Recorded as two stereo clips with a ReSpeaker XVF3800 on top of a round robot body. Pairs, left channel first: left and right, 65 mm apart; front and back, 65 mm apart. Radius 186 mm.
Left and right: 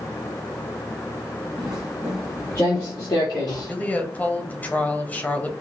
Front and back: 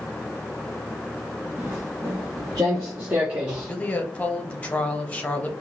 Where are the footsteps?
120° right, 0.9 m; by 3.7 s 100° left, 1.3 m.